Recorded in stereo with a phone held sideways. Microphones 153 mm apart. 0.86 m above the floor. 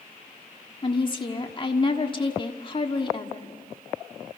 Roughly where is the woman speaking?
Left.